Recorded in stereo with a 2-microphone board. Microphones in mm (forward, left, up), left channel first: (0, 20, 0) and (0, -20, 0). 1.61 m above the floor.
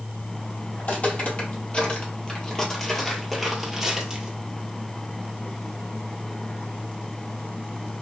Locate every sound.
0.8 s footsteps: 45° left (ahead or behind), 2 m; by 4.3 s 15° right (ahead or behind), 1.9 m